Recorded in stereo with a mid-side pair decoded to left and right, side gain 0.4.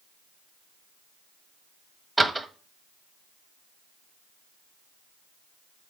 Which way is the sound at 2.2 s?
20° right.